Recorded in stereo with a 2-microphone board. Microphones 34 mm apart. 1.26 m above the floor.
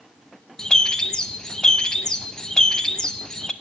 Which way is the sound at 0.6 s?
25° left (ahead or behind).